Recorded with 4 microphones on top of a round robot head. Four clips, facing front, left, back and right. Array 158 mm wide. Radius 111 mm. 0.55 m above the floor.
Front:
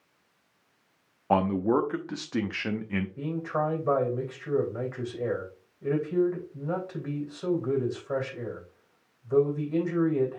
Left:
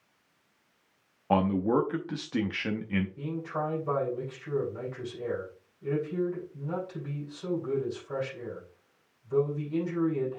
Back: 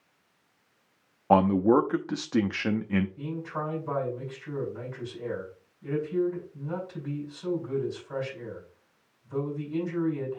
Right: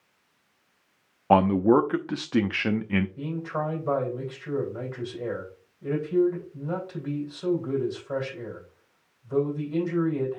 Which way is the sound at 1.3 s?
115° right.